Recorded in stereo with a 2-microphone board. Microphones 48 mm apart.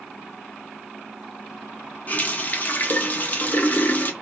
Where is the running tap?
40° left (ahead or behind), 0.5 m.